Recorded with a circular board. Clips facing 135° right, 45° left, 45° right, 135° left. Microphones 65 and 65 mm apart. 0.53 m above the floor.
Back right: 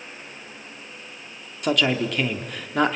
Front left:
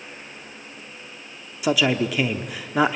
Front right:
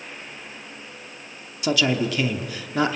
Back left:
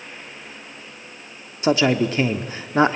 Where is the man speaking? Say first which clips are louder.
Front left 1 dB, back left 4 dB; 120° left, 1.3 m.